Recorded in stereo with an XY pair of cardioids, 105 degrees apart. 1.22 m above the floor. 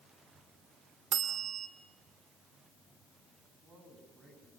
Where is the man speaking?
50° right, 9.5 m.